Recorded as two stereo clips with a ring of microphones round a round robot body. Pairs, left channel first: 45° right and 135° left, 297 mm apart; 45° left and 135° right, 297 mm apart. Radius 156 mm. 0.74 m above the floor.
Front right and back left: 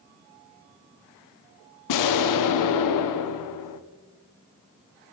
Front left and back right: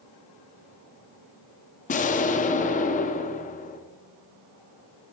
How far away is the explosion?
About 0.6 m.